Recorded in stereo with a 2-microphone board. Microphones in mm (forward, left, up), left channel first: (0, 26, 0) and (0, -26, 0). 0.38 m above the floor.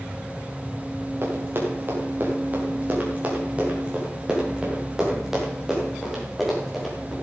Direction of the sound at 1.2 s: 50° right (ahead or behind).